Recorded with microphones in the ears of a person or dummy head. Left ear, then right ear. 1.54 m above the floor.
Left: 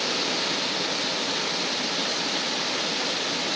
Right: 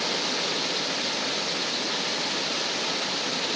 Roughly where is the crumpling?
I don't hear crumpling.